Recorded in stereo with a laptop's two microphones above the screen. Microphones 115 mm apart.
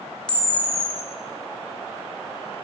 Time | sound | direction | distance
0.3 | a camera shutter | 5° left (ahead or behind) | 1.6 m